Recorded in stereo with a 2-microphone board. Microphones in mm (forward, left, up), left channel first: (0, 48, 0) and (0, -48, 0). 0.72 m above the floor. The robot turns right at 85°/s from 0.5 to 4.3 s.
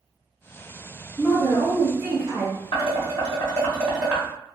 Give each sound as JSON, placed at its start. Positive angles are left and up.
{"t": 1.2, "sound": "a woman speaking", "azimuth_deg": -155, "distance_m": 1.3}
{"t": 2.7, "sound": "dishes clattering", "side_deg": 70, "distance_m": 1.1}